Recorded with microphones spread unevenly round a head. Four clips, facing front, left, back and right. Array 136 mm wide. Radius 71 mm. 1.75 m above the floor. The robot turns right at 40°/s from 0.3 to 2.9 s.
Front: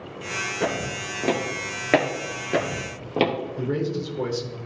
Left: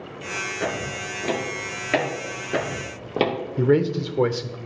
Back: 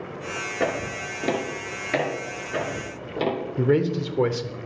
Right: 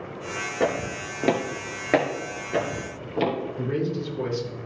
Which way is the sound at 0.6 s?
140° right.